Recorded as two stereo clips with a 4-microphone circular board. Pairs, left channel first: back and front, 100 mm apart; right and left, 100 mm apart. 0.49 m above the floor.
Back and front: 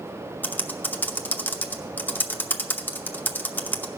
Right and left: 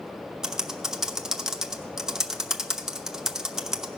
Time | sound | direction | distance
0.4 | typing on a keyboard | 160° left | 0.7 m